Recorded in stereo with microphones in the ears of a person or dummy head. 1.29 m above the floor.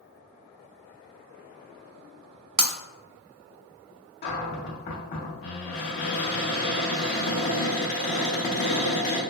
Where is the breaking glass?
30° right (ahead or behind), 0.5 m.